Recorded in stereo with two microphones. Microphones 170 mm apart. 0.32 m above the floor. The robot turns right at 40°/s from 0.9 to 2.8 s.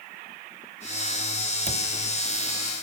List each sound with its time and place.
1.7 s a cupboard door: 45° right (ahead or behind), 0.5 m; by 1.9 s 50° right (ahead or behind), 0.5 m